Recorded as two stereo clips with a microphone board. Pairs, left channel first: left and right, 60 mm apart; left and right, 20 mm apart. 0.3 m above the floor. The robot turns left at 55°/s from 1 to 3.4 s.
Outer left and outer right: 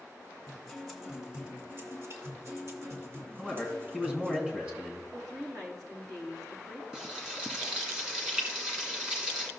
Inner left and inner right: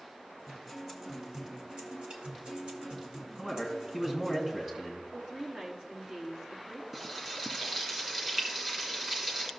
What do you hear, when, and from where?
0.5 s a guitar: 5° right, 1.9 m; by 4.4 s 135° right, 1.9 m
3.4 s a man speaking: 15° right (ahead or behind), 2 m
5.1 s a woman speaking: 65° right (ahead or behind), 3 m
6.9 s frying: 15° right (ahead or behind), 1.9 m